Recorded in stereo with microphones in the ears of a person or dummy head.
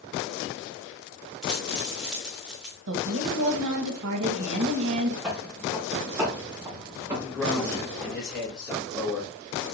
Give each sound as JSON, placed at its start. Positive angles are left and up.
{"t": 1.4, "sound": "a dropped coin", "side_deg": 0, "distance_m": 1.0}
{"t": 2.9, "sound": "a woman speaking", "side_deg": -70, "distance_m": 1.8}
{"t": 5.2, "sound": "footsteps", "side_deg": -5, "distance_m": 3.0}
{"t": 7.2, "sound": "a man speaking", "side_deg": 5, "distance_m": 3.5}